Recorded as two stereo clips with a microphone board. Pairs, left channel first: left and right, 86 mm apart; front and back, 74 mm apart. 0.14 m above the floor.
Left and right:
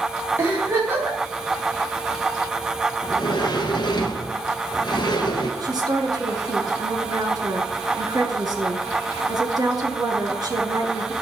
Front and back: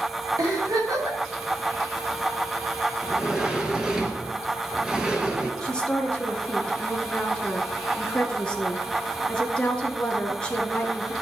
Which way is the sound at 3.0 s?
105° left.